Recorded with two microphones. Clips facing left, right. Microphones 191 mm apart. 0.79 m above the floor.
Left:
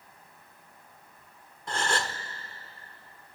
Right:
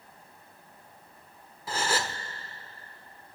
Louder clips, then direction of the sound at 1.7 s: Even; 5° right (ahead or behind).